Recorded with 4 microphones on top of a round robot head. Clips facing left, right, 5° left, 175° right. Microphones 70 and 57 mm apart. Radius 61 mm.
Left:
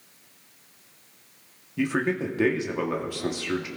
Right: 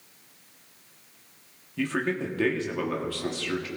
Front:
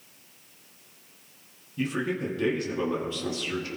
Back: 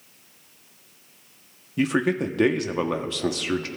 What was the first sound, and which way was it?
A man speaking, 170° left.